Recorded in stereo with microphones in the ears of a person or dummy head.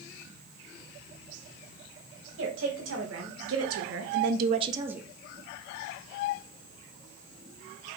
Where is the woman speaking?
65° right (ahead or behind), 2 m; by 5.1 s 5° right (ahead or behind), 0.7 m.